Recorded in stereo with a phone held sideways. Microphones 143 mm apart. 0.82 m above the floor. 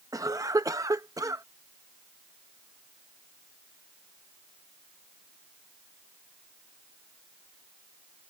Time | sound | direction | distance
0.1 | a cough | 25° right (ahead or behind) | ?